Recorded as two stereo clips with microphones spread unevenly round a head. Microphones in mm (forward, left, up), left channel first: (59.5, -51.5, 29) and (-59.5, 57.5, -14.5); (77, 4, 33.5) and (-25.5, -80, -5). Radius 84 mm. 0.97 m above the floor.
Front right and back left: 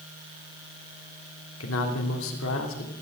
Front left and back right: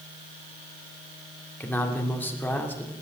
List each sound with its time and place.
1.6 s a man speaking: 40° right, 3 m